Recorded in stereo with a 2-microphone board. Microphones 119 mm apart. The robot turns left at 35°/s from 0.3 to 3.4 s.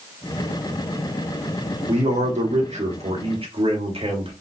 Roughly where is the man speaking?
Right.